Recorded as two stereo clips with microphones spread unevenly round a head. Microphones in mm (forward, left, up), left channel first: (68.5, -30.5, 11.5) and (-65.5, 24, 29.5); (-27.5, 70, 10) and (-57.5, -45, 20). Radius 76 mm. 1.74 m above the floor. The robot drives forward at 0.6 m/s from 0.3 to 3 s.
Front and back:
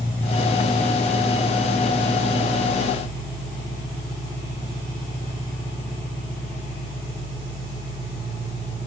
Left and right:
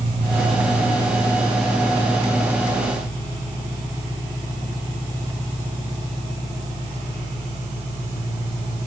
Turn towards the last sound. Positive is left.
turn(degrees=-160)